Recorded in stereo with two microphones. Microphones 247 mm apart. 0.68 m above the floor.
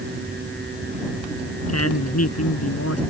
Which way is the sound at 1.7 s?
80° left.